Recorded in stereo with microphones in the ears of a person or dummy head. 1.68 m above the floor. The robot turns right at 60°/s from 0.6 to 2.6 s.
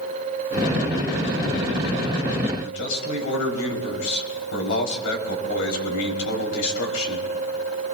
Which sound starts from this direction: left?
A man speaking, at 2.6 s.